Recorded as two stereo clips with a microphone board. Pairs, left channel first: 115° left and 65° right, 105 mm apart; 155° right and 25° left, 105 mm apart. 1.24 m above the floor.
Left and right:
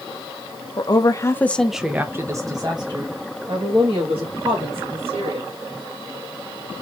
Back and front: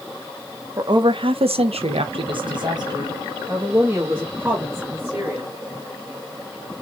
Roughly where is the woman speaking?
Left.